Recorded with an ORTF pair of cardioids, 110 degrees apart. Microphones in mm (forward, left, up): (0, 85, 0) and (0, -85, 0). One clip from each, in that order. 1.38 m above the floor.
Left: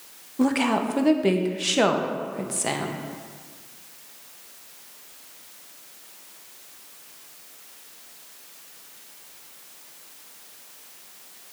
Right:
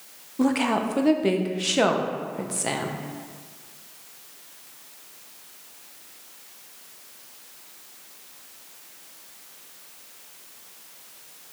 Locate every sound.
0.4 s a woman speaking: straight ahead, 0.6 m